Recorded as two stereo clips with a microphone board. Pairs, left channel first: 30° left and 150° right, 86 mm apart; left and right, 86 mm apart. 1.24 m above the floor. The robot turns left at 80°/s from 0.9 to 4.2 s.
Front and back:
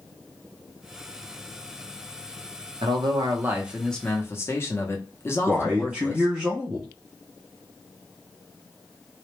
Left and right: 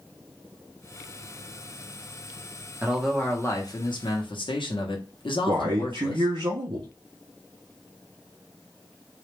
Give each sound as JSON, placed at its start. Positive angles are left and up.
{"t": 2.8, "sound": "a man speaking", "azimuth_deg": -160, "distance_m": 0.6}
{"t": 5.5, "sound": "a man speaking", "azimuth_deg": -75, "distance_m": 0.5}